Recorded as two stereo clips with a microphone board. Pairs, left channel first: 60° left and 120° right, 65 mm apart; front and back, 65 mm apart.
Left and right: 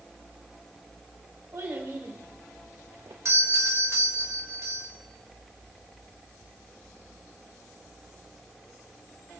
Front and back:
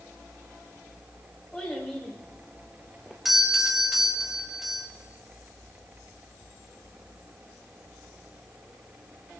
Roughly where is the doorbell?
Right.